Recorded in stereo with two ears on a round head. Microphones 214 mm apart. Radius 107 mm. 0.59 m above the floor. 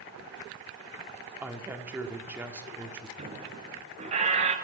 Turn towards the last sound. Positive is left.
turn(degrees=-30)  # may be behind; listen again after turning